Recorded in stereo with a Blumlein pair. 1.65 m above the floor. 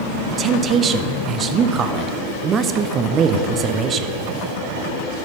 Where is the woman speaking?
25° right, 0.5 m.